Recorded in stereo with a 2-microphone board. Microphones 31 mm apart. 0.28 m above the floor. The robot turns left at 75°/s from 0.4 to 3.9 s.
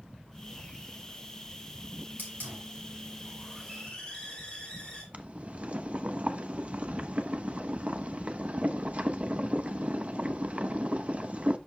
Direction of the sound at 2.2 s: 75° right.